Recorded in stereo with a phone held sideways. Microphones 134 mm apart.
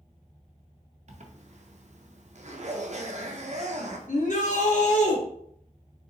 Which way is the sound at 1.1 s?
55° right (ahead or behind).